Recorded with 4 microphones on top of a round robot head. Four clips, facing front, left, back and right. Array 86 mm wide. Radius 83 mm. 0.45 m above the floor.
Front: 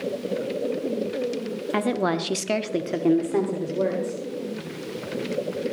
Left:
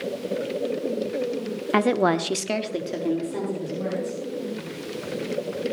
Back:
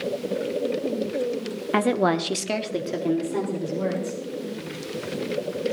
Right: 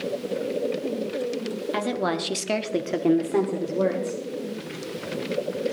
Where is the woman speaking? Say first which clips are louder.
Left 7 dB, back 3 dB; 115° left, 1.2 m; by 4.2 s 55° right, 2.5 m.